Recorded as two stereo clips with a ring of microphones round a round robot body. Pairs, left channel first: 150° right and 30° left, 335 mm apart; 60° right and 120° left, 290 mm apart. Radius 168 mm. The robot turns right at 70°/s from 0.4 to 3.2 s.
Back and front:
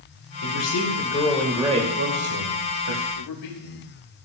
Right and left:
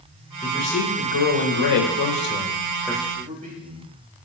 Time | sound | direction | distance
0.4 | a man speaking | 135° right | 3 m
3.1 | a man speaking | 175° right | 3.5 m